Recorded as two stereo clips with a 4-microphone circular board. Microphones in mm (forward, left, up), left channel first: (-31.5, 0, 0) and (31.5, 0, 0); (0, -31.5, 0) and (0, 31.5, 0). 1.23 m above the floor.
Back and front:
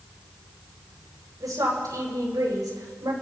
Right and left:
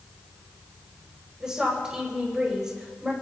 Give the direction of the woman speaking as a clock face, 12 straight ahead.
12 o'clock.